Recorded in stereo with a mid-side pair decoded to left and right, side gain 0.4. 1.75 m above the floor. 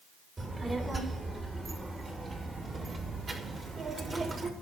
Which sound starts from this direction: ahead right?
A child speaking, at 0.4 s.